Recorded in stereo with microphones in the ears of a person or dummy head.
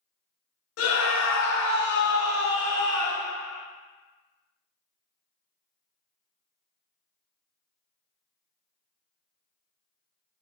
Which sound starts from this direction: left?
A scream, at 0.8 s.